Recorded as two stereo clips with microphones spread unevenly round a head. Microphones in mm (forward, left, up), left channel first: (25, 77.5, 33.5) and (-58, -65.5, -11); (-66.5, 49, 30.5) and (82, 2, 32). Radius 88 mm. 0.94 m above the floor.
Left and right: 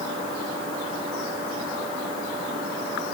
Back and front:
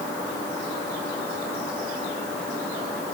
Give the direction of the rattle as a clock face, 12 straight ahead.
I don't hear a rattle.